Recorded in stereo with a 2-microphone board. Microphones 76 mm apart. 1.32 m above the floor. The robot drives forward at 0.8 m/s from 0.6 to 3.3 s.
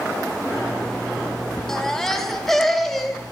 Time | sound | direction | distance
1.7 | a baby crying | 5° left (ahead or behind) | 2 m